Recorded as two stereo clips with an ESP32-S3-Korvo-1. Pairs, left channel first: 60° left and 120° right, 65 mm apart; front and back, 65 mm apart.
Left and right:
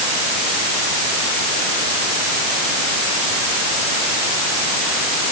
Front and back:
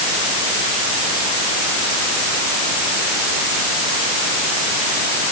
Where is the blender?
I don't hear a blender.